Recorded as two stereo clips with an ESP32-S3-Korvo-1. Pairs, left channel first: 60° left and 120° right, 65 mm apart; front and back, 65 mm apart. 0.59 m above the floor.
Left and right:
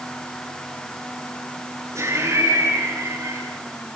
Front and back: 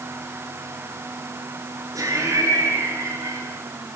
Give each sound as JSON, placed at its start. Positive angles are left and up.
{"t": 1.9, "sound": "laughter", "azimuth_deg": -155, "distance_m": 8.0}